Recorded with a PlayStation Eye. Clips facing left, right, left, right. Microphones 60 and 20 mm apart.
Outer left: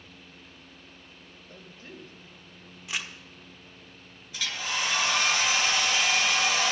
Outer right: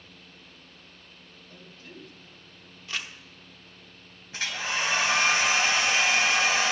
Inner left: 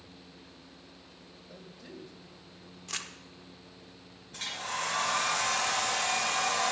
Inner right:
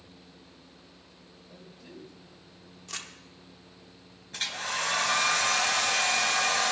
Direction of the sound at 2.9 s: 15° left (ahead or behind).